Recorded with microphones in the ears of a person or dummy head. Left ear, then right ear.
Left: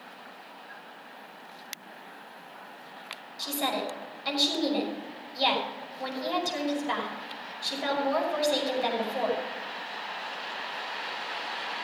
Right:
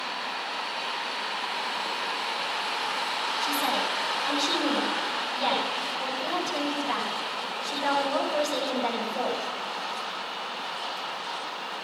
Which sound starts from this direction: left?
A woman speaking, at 3.4 s.